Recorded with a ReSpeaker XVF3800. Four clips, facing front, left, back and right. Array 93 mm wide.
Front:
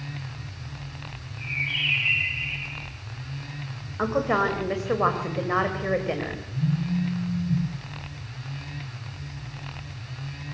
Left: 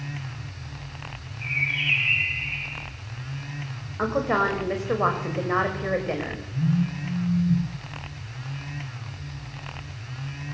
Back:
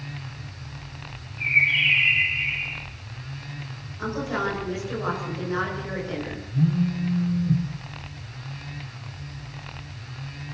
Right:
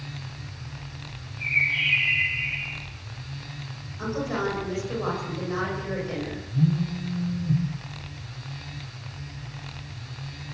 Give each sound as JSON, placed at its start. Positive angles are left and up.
{"t": 1.4, "sound": "a bird", "azimuth_deg": -155, "distance_m": 3.5}
{"t": 4.0, "sound": "a woman speaking", "azimuth_deg": 40, "distance_m": 4.5}
{"t": 6.5, "sound": "a phone buzzing", "azimuth_deg": -150, "distance_m": 4.0}